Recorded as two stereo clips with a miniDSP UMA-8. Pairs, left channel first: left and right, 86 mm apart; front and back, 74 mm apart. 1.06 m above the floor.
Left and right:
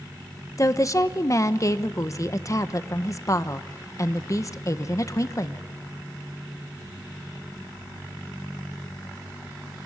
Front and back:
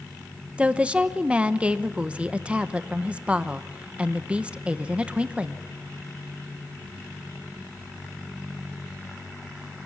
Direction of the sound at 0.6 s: 115° left.